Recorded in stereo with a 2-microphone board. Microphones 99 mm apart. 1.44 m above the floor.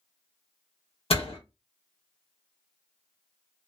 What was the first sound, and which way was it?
A door slam, 70° left (ahead or behind).